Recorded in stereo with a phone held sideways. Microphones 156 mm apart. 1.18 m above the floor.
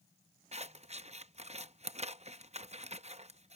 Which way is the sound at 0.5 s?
45° right (ahead or behind).